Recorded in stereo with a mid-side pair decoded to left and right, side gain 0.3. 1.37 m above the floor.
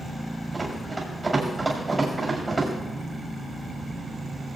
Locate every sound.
0.5 s running footsteps: 40° right, 7 m